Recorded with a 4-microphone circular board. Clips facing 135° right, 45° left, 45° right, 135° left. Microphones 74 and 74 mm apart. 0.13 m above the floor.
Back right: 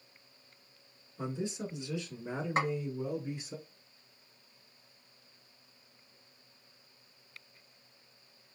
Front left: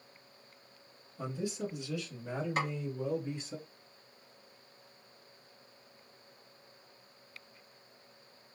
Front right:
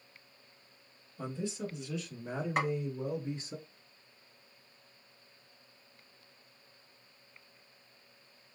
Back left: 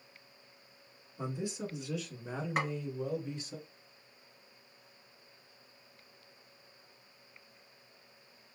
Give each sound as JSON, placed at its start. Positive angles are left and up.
{"t": 1.2, "sound": "a man speaking", "azimuth_deg": -170, "distance_m": 1.5}
{"t": 2.6, "sound": "a snare drum", "azimuth_deg": -140, "distance_m": 1.3}